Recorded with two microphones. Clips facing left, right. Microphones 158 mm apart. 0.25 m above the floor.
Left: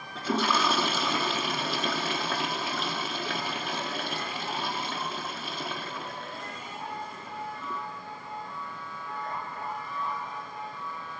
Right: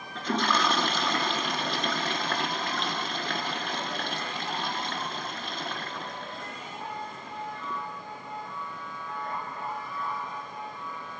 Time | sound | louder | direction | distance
0.1 | a toilet flushing | even | 5° left (ahead or behind) | 0.6 m